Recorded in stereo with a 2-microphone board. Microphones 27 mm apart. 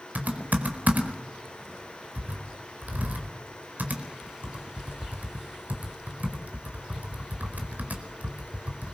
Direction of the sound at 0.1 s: 80° right.